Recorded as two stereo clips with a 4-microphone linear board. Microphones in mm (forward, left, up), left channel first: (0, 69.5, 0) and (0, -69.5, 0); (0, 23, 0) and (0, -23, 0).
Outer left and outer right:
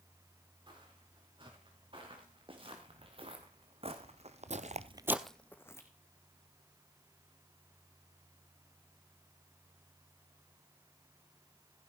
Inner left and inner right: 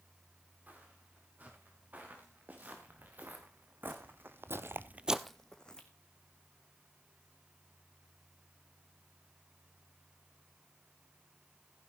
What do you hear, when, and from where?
0.7 s footsteps: 40° right (ahead or behind), 6.5 m; by 5.9 s 20° left (ahead or behind), 1.6 m